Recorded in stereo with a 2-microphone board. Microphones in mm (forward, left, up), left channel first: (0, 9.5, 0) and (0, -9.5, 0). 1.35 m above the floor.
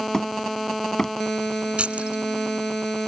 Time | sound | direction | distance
0.1 | hammering | 30° left (ahead or behind) | ?
1.8 | keys jangling | 65° right (ahead or behind) | ?